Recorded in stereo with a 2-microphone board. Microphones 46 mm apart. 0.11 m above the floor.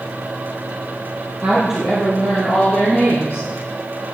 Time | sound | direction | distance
1.4 | a woman speaking | 20° right (ahead or behind) | 2.5 m